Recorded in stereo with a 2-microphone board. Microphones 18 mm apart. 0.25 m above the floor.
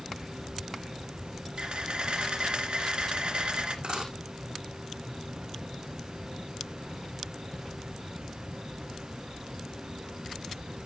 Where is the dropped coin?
85° right, 6 m.